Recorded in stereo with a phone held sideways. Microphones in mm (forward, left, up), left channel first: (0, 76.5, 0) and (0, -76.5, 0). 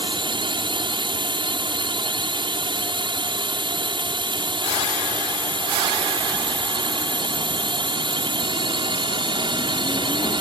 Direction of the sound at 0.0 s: 35° right (ahead or behind).